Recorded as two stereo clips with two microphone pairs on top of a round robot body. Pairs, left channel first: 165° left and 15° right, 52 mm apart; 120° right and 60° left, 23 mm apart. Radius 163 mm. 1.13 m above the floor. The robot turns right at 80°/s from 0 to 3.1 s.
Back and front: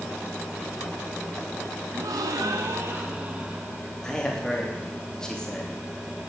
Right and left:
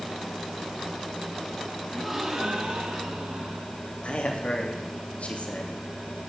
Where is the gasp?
40° right, 1.4 m; by 3.8 s 55° left, 1.4 m.